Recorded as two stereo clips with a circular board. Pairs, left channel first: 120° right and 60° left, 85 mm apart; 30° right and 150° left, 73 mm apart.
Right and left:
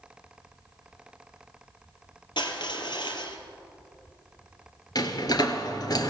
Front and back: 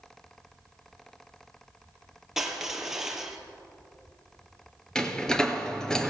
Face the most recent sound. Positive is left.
turn(degrees=-110)